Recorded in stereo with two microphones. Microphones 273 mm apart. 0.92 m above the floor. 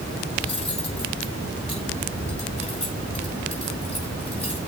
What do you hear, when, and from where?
0.4 s cutlery clinking: 25° left (ahead or behind), 6.5 m